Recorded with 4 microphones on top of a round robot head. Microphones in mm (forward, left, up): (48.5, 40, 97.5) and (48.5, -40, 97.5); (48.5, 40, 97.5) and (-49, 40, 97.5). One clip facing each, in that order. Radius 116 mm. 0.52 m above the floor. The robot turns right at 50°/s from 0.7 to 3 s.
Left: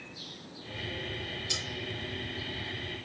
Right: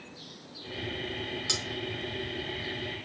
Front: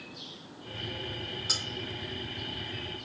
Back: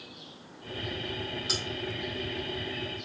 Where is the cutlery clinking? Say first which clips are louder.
Right 3 dB, back 4 dB; 90° right, 4 m; by 1.6 s 80° right, 4 m.